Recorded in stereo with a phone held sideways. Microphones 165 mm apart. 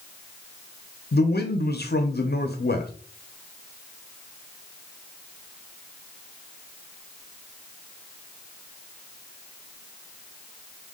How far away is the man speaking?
About 0.7 m.